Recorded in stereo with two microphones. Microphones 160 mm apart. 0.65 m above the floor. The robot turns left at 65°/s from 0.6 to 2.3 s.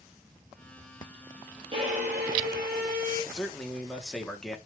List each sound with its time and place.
1.7 s a violin: 35° right, 3 m; by 3.2 s 75° right, 3 m
3.3 s a man speaking: 5° left (ahead or behind), 1.5 m